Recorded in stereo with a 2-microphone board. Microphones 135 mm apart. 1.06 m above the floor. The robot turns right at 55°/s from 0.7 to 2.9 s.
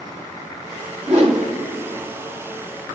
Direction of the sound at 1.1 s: 65° right (ahead or behind).